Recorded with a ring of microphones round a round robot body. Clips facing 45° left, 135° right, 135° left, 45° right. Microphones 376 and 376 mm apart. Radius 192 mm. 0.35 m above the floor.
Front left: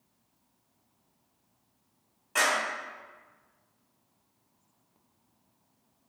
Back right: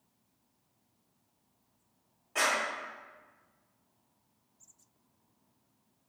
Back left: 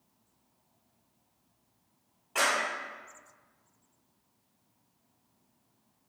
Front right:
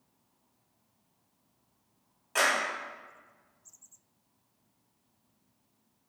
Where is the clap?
10° right, 2.0 m.